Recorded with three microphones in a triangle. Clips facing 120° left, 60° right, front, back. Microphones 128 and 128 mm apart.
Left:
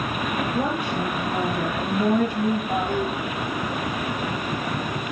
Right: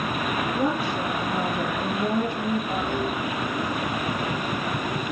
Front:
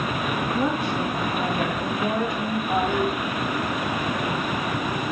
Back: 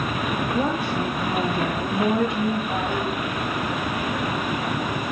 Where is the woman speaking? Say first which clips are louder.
Even, even; 135° left, 4 m; by 2.6 s 120° left, 3 m.